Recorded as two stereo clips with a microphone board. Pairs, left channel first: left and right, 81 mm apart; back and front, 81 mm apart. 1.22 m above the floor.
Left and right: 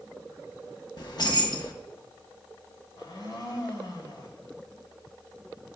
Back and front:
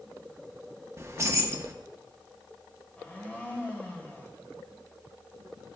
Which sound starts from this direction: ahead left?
Keys jangling, at 1.0 s.